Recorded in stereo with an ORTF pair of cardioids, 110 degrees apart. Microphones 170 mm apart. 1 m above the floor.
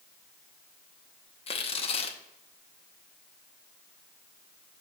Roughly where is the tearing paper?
Ahead left.